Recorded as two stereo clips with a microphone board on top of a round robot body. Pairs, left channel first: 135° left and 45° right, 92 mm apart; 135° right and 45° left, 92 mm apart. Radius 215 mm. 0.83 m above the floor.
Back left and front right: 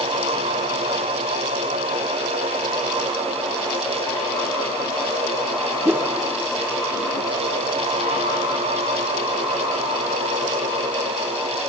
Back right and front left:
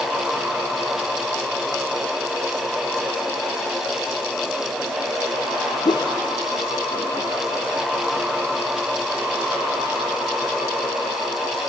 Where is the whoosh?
105° right, 1.0 m.